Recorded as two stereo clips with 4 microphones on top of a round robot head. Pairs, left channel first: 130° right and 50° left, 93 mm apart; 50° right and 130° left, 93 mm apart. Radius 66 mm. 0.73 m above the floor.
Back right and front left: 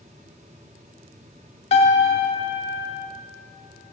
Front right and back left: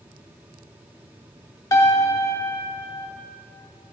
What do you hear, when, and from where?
1.7 s a piano: 110° right, 0.7 m